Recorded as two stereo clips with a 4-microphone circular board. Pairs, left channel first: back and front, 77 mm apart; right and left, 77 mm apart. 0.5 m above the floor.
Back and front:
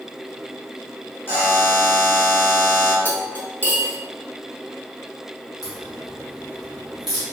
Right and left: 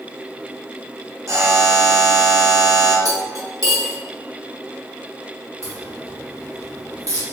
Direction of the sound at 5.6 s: 80° left.